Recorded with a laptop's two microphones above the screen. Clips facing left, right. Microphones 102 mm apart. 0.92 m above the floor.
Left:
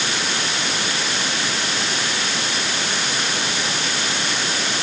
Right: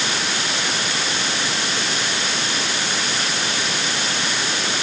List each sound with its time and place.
Only background noise.